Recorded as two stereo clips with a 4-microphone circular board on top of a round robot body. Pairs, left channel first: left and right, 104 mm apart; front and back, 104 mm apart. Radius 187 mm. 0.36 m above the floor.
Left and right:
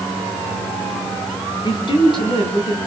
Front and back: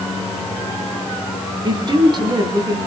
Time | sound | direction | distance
1.6 | a woman speaking | 135° left | 4.5 m